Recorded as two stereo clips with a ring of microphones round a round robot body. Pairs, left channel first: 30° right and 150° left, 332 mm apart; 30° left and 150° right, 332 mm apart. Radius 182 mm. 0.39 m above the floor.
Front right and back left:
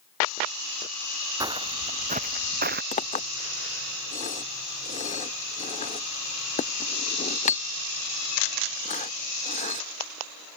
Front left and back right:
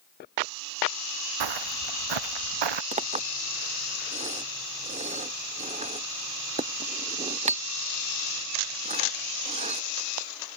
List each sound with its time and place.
1.4 s footsteps: 130° right; by 2.8 s 145° right
2.9 s a clink: 90° right